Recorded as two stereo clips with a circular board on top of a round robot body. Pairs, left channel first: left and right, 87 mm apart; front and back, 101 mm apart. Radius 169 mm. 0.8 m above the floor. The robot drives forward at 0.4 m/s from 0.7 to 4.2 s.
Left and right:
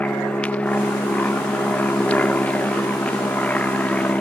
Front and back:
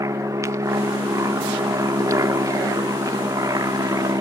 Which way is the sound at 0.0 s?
155° left.